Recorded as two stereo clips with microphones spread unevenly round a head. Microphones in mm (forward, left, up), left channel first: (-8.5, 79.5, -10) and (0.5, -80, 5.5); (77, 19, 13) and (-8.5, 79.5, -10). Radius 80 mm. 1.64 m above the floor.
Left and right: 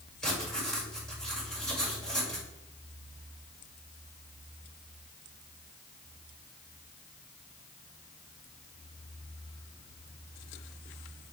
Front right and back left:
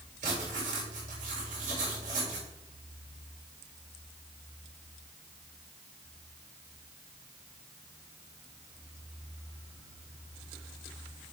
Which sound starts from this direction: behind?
Writing, at 0.2 s.